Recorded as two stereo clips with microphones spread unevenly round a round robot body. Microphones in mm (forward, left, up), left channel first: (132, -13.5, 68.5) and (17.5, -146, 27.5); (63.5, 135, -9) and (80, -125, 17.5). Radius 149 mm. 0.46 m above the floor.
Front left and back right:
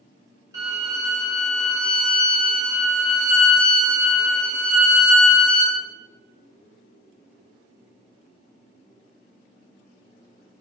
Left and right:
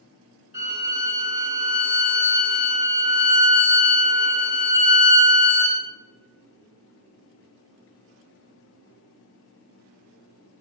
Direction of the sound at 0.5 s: 145° right.